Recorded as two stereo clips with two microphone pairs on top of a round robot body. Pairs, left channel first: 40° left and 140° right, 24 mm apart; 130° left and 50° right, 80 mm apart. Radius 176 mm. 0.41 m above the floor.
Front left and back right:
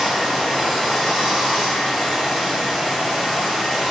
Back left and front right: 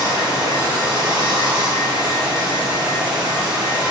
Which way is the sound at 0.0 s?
60° right.